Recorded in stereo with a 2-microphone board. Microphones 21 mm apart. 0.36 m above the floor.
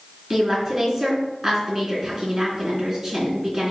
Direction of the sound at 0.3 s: 5° right (ahead or behind).